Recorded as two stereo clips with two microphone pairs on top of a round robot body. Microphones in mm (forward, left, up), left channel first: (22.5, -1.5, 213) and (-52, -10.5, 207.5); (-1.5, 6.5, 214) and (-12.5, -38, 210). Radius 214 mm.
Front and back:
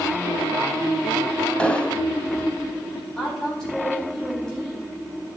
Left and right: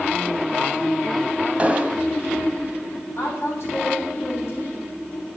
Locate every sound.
1.6 s an explosion: 70° right, 1.5 m
3.2 s a woman speaking: 90° left, 1.9 m